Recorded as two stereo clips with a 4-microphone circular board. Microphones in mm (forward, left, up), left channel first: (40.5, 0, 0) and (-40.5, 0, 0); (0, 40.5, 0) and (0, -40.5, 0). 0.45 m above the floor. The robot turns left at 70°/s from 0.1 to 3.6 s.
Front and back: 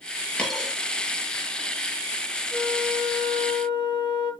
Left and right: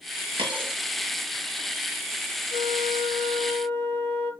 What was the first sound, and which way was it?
A dropped coin, 75° right.